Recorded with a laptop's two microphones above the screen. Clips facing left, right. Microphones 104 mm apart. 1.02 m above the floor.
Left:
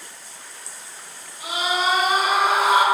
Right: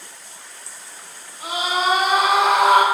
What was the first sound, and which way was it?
A scream, 40° right (ahead or behind).